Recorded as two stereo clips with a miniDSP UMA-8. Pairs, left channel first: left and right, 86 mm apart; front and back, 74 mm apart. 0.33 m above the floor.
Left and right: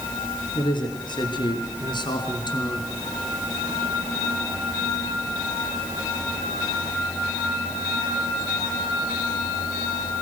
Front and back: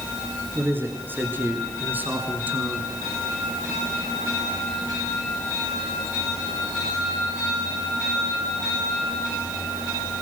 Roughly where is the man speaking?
Behind left.